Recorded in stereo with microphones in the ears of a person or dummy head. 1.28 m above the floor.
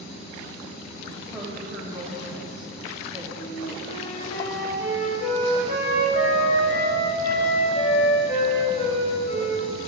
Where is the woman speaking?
5° right (ahead or behind), 2.5 m.